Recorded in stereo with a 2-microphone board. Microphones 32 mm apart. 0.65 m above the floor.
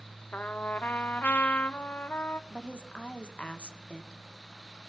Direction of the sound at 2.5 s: 40° left (ahead or behind).